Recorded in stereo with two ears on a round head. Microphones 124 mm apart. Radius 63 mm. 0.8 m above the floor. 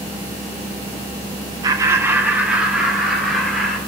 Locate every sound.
1.6 s laughter: 25° right (ahead or behind), 0.8 m; by 3.8 s centre (ahead or behind), 2.5 m